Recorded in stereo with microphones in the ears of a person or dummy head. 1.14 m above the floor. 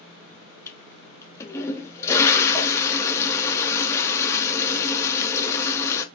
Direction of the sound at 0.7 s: 20° left (ahead or behind).